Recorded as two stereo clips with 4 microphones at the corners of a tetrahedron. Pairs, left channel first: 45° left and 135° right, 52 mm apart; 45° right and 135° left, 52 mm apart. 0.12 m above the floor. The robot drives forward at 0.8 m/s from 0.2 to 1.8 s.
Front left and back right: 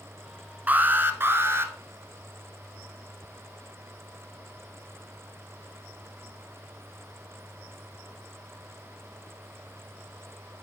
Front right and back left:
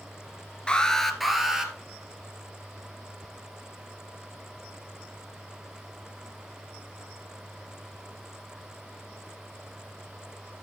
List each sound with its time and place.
0.7 s an alarm: 105° right, 1.0 m; by 1.7 s 150° right, 1.4 m